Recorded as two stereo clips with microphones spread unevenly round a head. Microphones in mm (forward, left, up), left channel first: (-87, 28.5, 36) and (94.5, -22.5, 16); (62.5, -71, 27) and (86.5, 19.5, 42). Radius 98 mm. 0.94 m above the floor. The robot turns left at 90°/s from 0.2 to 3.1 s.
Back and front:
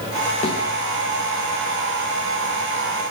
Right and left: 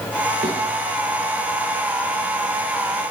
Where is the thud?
110° left, 7.5 m; by 0.6 s 95° left, 7.5 m.